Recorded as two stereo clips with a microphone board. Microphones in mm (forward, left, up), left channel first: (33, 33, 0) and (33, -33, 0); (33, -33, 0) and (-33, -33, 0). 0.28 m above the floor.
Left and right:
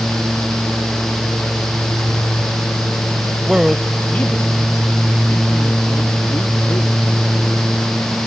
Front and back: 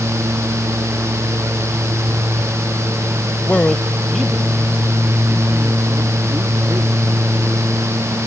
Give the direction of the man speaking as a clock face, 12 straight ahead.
1 o'clock.